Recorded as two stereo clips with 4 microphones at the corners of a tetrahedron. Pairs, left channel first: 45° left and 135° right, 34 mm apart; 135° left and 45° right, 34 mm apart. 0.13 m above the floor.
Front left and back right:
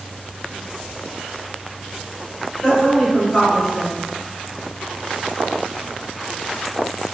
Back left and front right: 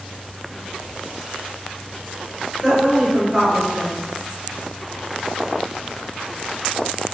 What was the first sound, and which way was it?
A woman speaking, 5° left.